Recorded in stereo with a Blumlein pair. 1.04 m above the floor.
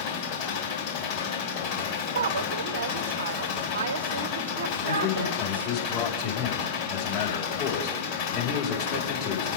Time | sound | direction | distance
0.0 | an engine running | 50° left | 3.5 m
2.1 | a woman speaking | 65° right | 1.4 m
4.9 | a man speaking | 45° left | 4.5 m